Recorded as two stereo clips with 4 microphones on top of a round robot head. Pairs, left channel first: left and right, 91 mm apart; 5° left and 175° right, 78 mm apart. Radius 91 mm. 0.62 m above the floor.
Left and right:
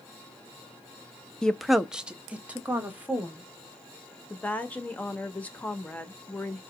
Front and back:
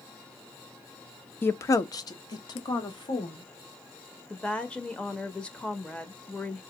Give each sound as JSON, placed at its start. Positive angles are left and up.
{"t": 1.4, "sound": "a woman speaking", "azimuth_deg": 20, "distance_m": 0.6}
{"t": 4.3, "sound": "a woman speaking", "azimuth_deg": 50, "distance_m": 0.9}